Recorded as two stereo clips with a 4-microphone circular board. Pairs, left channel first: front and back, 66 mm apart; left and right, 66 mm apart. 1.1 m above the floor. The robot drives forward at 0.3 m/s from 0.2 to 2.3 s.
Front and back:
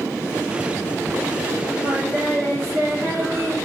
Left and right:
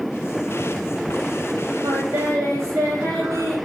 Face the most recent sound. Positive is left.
turn(degrees=-130)